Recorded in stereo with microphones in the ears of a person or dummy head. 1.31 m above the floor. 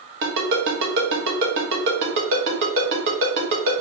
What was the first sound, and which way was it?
A ringtone, 55° right (ahead or behind).